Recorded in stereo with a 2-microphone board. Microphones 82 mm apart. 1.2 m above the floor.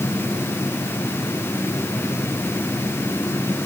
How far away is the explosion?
I don't hear an explosion.